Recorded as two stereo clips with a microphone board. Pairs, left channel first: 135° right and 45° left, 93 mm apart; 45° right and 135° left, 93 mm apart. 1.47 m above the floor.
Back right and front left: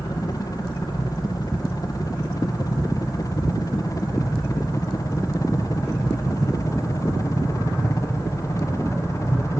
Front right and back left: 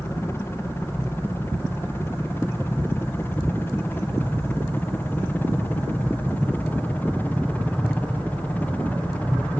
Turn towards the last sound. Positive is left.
turn(degrees=-110)